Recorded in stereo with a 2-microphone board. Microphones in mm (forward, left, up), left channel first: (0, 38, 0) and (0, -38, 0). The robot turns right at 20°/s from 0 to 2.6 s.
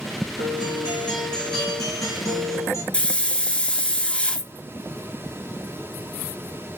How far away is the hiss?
About 0.7 m.